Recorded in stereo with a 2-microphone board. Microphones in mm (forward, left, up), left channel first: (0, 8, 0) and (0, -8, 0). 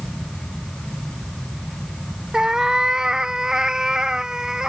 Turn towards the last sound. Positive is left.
turn(degrees=-45)  # may be behind; listen again after turning